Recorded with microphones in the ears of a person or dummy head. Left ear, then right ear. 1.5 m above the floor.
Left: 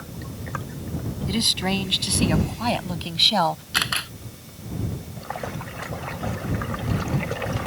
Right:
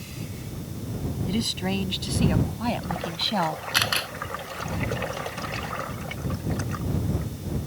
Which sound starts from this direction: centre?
A camera shutter, at 3.7 s.